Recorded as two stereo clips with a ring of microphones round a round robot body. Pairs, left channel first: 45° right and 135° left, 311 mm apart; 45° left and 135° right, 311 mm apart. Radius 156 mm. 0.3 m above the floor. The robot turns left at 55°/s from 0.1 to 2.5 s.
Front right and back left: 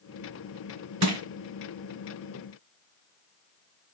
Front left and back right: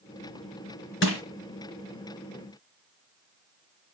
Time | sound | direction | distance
1.0 | crushing | 100° left | 4 m